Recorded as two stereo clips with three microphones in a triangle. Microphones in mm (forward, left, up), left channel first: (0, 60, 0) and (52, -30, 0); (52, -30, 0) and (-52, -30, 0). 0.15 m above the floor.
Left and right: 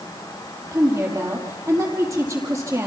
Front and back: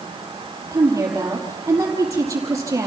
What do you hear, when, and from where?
0.7 s a woman speaking: 120° right, 4.5 m